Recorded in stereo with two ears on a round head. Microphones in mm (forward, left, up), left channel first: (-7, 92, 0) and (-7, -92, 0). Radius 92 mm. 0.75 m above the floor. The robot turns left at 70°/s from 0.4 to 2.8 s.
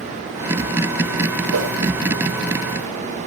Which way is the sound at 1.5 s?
75° right (ahead or behind).